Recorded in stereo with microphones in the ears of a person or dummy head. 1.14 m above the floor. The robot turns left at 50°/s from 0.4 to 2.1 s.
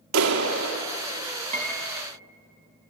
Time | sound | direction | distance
0.1 | a clap | 80° right | 2.0 m
1.5 | a piano | 35° right (ahead or behind) | 2.0 m